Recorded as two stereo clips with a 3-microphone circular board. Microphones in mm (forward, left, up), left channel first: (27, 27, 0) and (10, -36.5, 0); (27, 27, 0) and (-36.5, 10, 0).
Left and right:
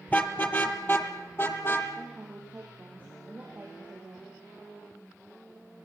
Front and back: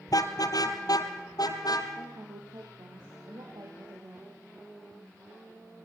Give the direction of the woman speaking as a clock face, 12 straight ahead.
6 o'clock.